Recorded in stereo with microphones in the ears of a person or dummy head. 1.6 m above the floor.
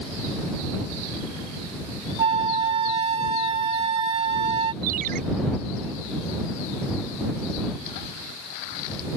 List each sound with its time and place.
2.2 s a flute: 30° right (ahead or behind)
4.8 s a ringtone: 50° right (ahead or behind)